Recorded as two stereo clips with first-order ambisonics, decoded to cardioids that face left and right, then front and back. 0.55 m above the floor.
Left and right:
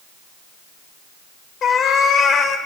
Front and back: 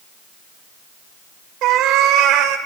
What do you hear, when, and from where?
1.6 s a cat meowing: 150° left, 0.9 m